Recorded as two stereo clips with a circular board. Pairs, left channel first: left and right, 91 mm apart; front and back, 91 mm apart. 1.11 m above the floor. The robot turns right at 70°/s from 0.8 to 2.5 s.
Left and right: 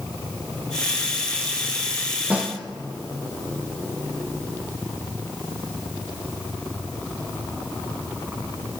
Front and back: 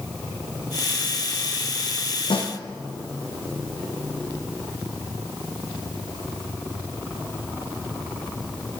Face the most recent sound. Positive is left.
turn(degrees=0)